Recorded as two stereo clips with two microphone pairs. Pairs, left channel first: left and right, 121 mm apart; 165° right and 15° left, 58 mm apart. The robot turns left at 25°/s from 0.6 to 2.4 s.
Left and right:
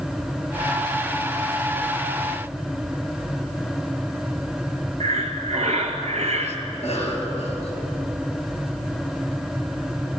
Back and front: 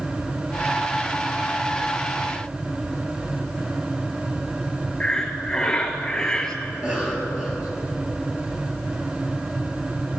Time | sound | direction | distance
5.0 | breathing | 90° right | 0.9 m
6.7 | a cough | 80° left | 3.5 m